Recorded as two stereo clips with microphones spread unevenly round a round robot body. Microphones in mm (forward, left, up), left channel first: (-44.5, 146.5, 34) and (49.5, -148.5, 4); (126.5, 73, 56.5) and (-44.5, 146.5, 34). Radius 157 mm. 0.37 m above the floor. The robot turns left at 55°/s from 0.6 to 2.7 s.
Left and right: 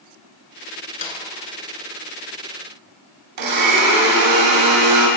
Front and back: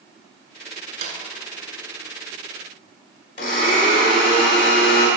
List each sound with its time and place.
1.0 s a snare drum: 165° left, 1.4 m; by 1.2 s 155° left, 1.4 m
3.4 s a blender: 85° right, 2.5 m